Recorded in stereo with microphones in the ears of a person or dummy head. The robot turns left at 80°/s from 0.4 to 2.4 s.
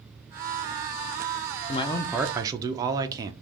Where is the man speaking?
30° left, 0.5 m; by 3.3 s 25° right, 0.5 m.